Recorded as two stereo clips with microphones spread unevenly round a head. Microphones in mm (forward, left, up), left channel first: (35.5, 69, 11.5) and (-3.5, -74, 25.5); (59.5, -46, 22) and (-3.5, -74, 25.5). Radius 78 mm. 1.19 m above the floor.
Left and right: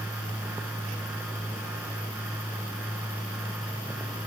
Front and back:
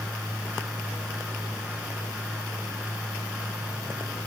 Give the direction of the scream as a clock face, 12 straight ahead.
No scream in this recording.